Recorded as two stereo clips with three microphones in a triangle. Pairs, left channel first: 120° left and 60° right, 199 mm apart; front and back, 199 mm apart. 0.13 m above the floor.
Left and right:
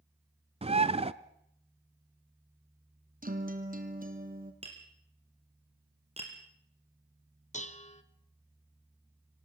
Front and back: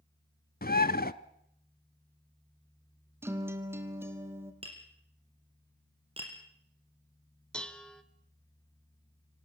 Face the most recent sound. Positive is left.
turn(degrees=85)